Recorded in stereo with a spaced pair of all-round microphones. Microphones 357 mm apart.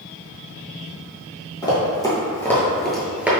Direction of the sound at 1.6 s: 10° left (ahead or behind).